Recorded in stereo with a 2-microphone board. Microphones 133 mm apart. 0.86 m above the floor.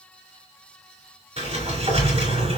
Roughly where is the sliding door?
Right.